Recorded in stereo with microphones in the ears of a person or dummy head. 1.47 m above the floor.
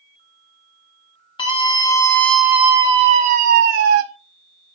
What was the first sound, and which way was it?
A scream, 30° left (ahead or behind).